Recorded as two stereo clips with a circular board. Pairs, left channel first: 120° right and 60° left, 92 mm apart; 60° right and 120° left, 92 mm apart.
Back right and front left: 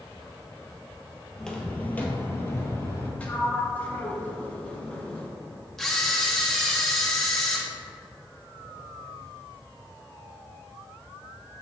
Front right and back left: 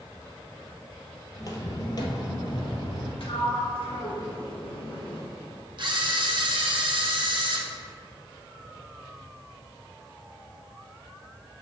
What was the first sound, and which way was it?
Footsteps, 40° right.